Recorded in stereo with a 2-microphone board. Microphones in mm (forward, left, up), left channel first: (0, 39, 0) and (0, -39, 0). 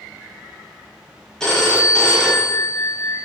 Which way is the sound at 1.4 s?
10° left (ahead or behind).